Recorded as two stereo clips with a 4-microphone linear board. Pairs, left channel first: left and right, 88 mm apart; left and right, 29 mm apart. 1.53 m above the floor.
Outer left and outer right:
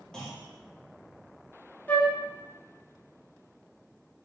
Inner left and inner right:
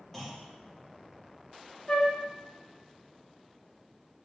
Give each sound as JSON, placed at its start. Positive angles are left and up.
{"t": 0.1, "sound": "a clunk", "side_deg": 5, "distance_m": 1.0}
{"t": 1.9, "sound": "a flute", "side_deg": 20, "distance_m": 0.5}